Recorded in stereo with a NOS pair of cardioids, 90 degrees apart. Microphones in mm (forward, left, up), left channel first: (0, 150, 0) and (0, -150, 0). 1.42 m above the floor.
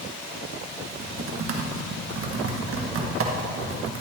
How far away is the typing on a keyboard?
About 1.6 m.